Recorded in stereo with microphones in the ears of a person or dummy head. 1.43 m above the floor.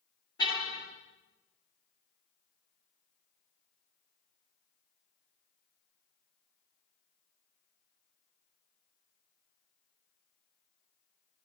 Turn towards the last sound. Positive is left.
turn(degrees=25)  # may be behind; listen again after turning